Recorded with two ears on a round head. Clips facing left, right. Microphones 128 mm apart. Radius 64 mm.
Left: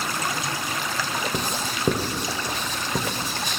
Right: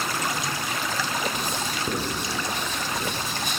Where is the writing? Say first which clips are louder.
Left 1 dB; 60° left (ahead or behind), 0.9 m.